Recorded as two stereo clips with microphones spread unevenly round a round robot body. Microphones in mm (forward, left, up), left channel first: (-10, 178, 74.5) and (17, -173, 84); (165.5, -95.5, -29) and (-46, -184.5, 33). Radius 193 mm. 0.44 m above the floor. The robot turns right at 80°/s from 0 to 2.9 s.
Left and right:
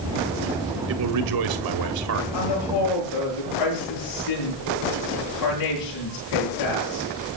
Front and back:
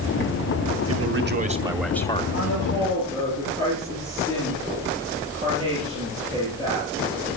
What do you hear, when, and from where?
0.9 s a man speaking: 140° right, 2.5 m; by 2.2 s 30° right, 2.5 m
2.3 s a woman speaking: 80° left, 9 m; by 7.4 s 125° left, 9 m